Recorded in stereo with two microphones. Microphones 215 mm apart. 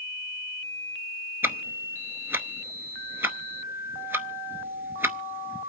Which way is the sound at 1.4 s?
10° right (ahead or behind).